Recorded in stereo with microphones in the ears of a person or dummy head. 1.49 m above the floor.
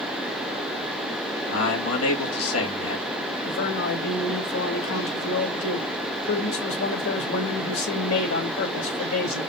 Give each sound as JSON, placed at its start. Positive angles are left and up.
{"t": 1.5, "sound": "a man speaking", "side_deg": 90, "distance_m": 2.5}
{"t": 3.5, "sound": "a man speaking", "side_deg": 70, "distance_m": 3.0}